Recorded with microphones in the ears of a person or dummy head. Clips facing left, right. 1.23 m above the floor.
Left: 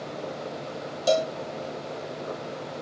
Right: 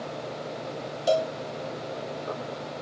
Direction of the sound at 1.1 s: 30° left (ahead or behind).